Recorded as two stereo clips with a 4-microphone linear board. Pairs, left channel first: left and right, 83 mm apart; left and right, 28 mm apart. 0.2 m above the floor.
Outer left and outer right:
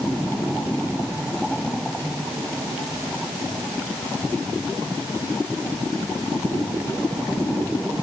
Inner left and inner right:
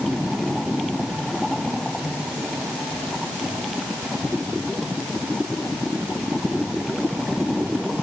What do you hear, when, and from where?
Only background noise.